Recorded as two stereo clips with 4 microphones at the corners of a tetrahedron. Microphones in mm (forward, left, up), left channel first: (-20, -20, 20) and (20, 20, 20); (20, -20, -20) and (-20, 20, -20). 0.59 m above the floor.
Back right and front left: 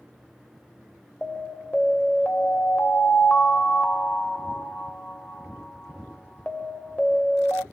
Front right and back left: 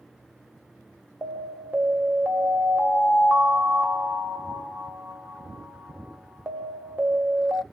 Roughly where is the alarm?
Behind.